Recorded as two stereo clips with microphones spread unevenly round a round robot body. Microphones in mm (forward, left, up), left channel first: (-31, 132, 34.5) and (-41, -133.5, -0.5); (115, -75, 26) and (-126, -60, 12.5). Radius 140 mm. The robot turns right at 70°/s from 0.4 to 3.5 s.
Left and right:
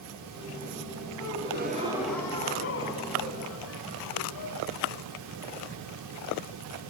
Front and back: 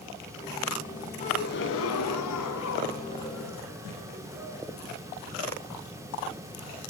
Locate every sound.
1.2 s a gasp: 65° right, 3.5 m; by 4.6 s 95° left, 3.5 m